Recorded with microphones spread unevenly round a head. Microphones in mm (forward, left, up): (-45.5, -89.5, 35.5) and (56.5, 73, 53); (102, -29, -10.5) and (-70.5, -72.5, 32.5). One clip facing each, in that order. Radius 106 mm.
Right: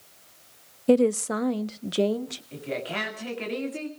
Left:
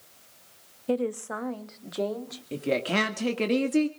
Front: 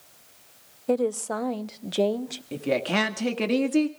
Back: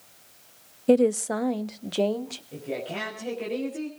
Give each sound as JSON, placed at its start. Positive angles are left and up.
{"t": 0.9, "sound": "a woman speaking", "azimuth_deg": -105, "distance_m": 0.5}
{"t": 2.5, "sound": "a woman speaking", "azimuth_deg": 20, "distance_m": 1.8}